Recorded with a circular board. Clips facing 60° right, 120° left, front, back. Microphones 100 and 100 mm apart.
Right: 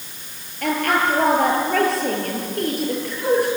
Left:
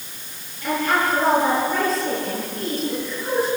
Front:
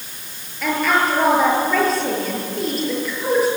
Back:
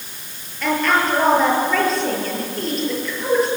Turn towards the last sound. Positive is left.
turn(degrees=-85)